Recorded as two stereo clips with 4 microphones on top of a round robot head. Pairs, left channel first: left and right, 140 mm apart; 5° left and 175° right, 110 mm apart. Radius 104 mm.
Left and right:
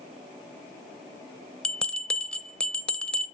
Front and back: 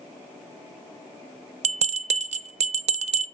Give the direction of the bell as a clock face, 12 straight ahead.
6 o'clock.